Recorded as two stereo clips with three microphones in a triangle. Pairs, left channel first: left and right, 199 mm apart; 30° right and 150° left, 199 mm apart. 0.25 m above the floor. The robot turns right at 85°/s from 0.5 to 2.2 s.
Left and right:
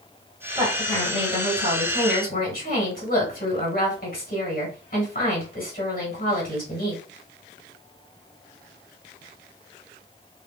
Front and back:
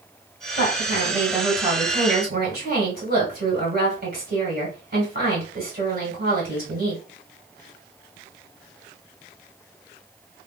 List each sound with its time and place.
0.6 s a woman speaking: 20° right, 2.5 m; by 7.0 s 120° left, 2.5 m